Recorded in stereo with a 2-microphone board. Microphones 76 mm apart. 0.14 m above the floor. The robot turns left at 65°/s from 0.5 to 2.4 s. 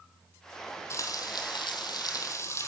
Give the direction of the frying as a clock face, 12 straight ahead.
7 o'clock.